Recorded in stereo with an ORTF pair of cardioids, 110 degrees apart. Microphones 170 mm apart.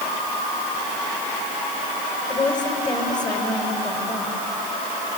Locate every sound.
2.3 s a woman speaking: 25° left, 5 m